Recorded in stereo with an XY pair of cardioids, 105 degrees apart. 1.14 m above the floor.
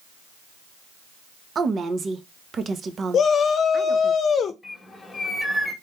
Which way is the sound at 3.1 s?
55° left.